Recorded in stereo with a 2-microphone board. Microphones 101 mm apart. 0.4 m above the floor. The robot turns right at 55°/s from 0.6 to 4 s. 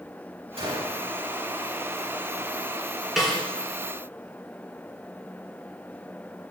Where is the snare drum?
Centre (ahead or behind), 3.5 m; by 3.4 s 10° left (ahead or behind), 3.5 m.